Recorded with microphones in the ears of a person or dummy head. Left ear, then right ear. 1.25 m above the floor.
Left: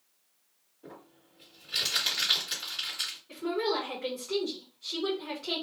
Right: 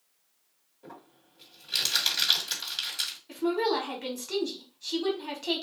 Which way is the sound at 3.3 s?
65° right (ahead or behind).